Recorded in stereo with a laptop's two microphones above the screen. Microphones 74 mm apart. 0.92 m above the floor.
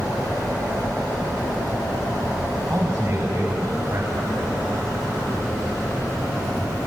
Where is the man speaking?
45° right (ahead or behind), 6.5 m; by 4.8 s 50° right (ahead or behind), 5.5 m.